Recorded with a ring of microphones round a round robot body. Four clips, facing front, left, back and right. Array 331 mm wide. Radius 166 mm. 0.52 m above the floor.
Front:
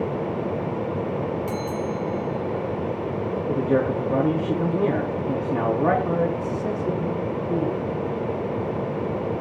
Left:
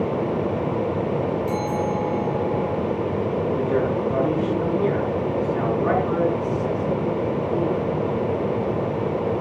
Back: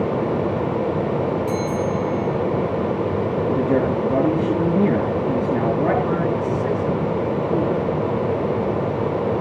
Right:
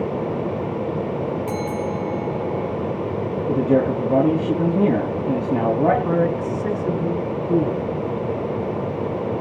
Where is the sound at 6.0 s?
100° right, 5 m.